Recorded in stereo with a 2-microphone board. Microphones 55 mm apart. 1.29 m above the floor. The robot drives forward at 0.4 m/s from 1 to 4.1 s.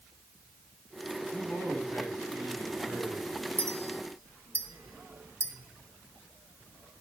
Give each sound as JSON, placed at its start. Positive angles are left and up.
{"t": 1.3, "sound": "a man speaking", "side_deg": 45, "distance_m": 8.0}
{"t": 3.6, "sound": "a clink", "side_deg": -50, "distance_m": 1.5}